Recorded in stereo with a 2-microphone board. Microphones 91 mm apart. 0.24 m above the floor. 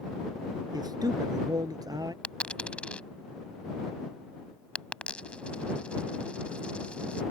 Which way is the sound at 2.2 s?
15° left (ahead or behind).